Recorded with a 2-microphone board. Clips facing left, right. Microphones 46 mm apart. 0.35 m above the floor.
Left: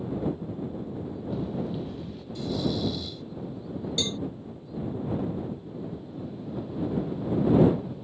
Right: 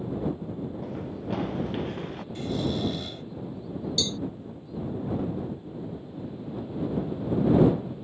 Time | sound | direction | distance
0.8 | running footsteps | 70° right (ahead or behind) | ?
2.4 | snoring | 45° right (ahead or behind) | ?
4.0 | a cowbell | 35° left (ahead or behind) | ?